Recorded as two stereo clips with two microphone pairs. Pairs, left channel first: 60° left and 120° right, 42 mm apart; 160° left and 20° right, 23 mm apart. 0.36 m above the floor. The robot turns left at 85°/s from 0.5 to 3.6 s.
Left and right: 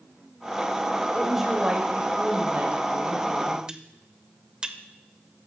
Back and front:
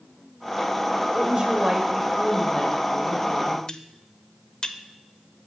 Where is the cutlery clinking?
175° right, 0.5 m.